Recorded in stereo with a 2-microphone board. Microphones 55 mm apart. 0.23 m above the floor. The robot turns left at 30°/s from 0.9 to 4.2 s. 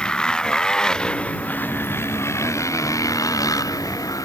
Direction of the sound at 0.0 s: 15° left (ahead or behind).